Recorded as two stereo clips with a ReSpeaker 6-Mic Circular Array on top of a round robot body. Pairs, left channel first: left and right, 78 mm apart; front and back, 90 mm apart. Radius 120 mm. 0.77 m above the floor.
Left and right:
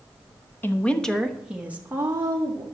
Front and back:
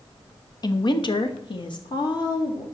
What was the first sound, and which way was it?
A woman speaking, 30° left.